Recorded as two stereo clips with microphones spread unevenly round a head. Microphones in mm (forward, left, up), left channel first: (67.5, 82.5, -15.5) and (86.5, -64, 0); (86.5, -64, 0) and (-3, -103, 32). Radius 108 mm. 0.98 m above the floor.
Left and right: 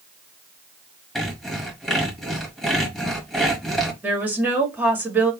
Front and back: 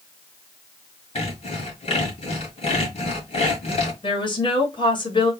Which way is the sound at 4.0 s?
Straight ahead.